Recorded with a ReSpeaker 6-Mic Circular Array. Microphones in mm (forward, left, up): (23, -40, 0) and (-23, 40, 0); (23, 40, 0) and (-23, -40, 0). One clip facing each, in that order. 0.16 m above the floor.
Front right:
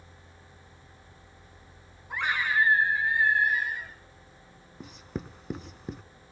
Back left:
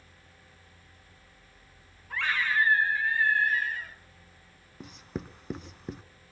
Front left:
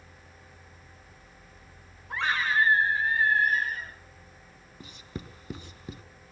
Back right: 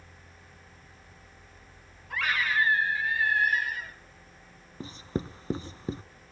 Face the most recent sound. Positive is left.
turn(degrees=-150)